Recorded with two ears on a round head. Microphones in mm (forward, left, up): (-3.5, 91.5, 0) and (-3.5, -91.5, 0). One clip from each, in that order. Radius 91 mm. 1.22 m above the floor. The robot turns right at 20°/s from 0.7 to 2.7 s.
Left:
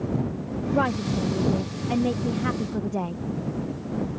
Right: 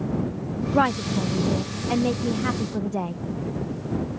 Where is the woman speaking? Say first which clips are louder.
Right 3 dB; 45° right; by 3.1 s 5° right.